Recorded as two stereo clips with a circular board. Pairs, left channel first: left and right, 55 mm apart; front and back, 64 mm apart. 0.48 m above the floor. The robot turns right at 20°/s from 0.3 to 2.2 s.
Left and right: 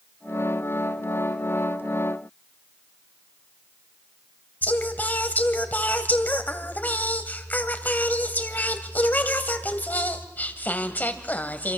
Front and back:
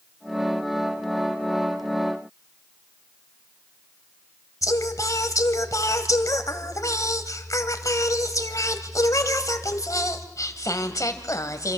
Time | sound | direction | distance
4.6 | singing | 35° left | 1.5 m